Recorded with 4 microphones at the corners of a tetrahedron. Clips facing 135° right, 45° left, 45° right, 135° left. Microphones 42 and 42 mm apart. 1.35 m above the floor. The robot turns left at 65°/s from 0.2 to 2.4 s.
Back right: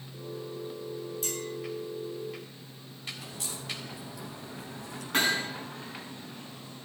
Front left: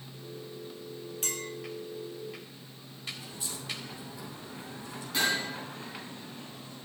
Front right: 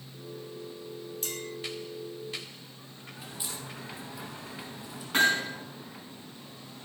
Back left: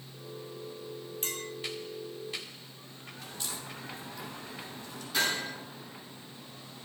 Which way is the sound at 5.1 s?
90° right.